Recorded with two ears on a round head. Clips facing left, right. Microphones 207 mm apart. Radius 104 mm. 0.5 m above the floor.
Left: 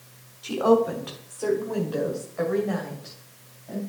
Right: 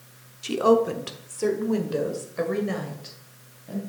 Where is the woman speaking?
30° right (ahead or behind), 1.0 m; by 3.8 s 35° right (ahead or behind), 3 m.